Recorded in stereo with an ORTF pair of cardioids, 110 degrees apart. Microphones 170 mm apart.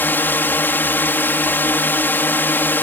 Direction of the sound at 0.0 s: 10° left.